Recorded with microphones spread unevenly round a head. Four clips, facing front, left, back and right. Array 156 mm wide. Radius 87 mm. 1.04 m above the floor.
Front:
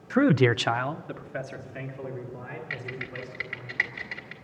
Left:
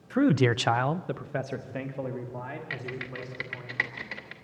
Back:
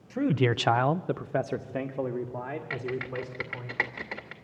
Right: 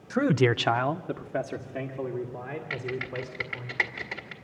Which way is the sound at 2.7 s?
175° right.